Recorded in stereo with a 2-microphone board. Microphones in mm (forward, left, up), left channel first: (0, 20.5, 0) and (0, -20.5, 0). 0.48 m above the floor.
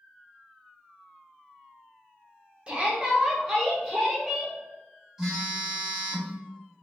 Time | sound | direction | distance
2.7 | a shout | 25° right (ahead or behind) | 0.9 m
5.2 | a phone buzzing | 15° right (ahead or behind) | 1.1 m